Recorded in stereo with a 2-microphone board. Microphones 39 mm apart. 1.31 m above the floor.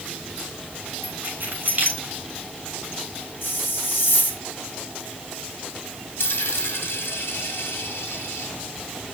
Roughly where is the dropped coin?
Left.